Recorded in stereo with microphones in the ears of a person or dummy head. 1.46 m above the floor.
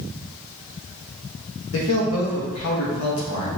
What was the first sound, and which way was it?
A man speaking, 80° left.